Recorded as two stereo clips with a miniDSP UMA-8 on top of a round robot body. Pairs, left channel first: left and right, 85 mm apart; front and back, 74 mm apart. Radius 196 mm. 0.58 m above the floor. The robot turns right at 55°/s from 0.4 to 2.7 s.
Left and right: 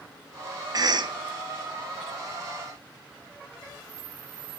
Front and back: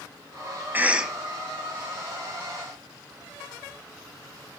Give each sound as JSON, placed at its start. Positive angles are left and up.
{"t": 0.7, "sound": "a cough", "azimuth_deg": -120, "distance_m": 0.8}